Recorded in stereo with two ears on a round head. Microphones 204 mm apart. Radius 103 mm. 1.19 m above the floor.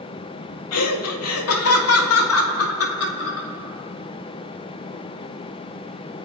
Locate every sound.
0.7 s laughter: 80° left, 2 m; by 3.5 s 70° left (ahead or behind), 4 m